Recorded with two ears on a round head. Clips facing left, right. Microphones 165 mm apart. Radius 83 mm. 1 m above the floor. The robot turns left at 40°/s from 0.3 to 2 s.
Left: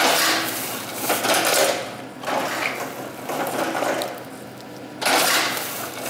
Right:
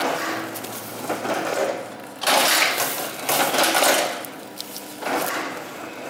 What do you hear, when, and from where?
2.6 s a finger snap: 75° right (ahead or behind), 2.5 m